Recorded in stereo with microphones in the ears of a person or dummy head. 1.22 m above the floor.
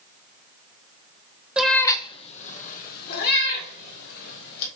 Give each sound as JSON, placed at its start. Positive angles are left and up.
{"t": 1.6, "sound": "a cat meowing", "side_deg": -5, "distance_m": 0.9}